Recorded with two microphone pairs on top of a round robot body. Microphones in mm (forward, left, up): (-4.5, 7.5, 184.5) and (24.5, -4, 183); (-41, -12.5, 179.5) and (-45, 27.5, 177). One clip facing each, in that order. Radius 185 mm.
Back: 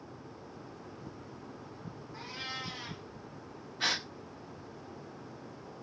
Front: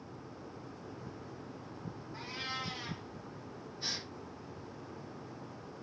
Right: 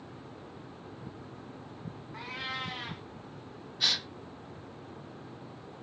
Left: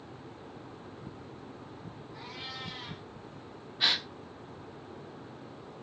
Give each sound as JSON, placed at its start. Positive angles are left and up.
{"t": 2.1, "sound": "a cat meowing", "azimuth_deg": -110, "distance_m": 1.0}
{"t": 3.8, "sound": "a gasp", "azimuth_deg": 160, "distance_m": 1.5}